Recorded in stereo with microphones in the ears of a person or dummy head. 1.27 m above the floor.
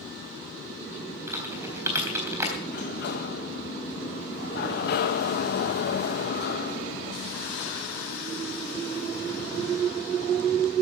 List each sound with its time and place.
1.3 s typing on a keyboard: 15° right (ahead or behind), 3.5 m
2.7 s a sliding door: 60° left (ahead or behind), 1.5 m